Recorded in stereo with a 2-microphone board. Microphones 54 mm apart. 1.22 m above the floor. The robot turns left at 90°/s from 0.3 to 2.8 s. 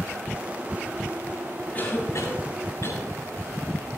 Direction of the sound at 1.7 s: 15° left (ahead or behind).